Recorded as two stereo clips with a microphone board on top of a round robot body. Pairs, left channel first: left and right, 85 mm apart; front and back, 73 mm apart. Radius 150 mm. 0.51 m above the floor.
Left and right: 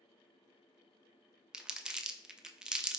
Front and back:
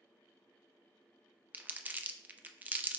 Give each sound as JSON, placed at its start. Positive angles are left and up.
{"t": 1.5, "sound": "crumpling", "azimuth_deg": -160, "distance_m": 0.6}